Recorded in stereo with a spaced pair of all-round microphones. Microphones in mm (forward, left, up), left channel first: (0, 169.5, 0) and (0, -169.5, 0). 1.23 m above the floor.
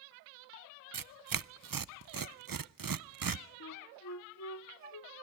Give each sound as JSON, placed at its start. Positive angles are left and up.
{"t": 0.9, "sound": "tearing paper", "side_deg": -75, "distance_m": 0.5}
{"t": 3.6, "sound": "a flute", "side_deg": 55, "distance_m": 0.9}